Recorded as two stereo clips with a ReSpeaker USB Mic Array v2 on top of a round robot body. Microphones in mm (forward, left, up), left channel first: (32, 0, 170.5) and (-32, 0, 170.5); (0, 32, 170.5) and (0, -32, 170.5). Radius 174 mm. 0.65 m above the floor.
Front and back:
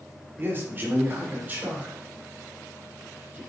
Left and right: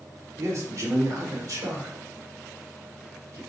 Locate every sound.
0.4 s a man speaking: 125° right, 2.5 m; by 3.4 s 110° right, 4.5 m